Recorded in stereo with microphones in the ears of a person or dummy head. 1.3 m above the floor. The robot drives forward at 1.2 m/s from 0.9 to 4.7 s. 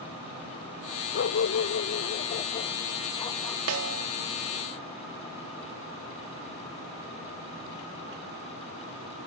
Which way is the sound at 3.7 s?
90° right.